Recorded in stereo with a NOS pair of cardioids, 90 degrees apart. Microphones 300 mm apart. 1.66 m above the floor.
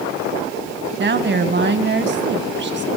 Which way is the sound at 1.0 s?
35° right.